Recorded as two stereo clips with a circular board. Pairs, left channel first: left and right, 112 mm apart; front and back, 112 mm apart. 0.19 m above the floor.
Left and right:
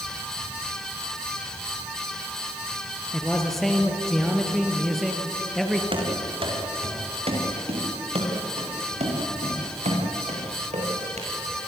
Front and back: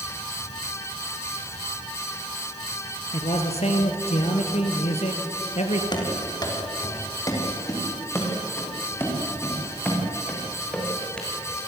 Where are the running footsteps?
50° right, 6 m; by 11.3 s 85° right, 7.5 m.